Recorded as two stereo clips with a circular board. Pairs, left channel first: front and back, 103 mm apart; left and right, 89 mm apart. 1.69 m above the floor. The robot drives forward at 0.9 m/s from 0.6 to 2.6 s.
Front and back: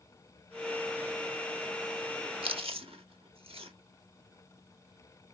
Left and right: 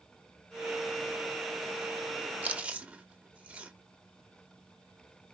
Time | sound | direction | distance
2.4 | chewing | 160° right | 0.6 m